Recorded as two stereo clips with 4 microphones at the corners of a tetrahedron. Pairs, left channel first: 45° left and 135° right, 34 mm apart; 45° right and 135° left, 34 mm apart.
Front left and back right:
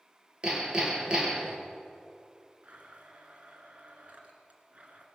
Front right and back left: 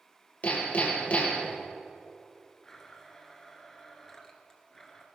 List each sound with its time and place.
0.4 s hammering: 80° right, 3 m
2.6 s a blender: 115° right, 2.0 m